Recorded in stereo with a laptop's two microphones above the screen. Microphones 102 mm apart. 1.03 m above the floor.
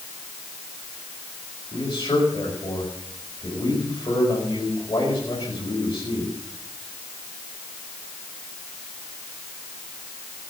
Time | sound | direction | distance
1.7 | a man speaking | 40° left (ahead or behind) | 5 m